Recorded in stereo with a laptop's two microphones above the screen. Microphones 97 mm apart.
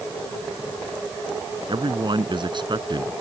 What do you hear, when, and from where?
1.7 s a man speaking: 55° right (ahead or behind)